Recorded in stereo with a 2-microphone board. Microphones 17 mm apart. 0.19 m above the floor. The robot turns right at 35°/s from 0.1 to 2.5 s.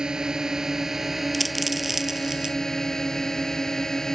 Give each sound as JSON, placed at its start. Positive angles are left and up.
{"t": 0.0, "sound": "a drone", "azimuth_deg": -55}
{"t": 1.3, "sound": "a dropped coin", "side_deg": 5}